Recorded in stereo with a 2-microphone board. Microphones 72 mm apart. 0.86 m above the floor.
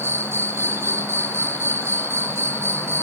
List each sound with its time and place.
0.0 s an insect: 40° right (ahead or behind), 1.0 m